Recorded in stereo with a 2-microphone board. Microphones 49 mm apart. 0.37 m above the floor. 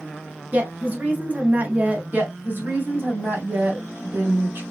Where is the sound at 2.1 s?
45° right (ahead or behind), 1.9 m.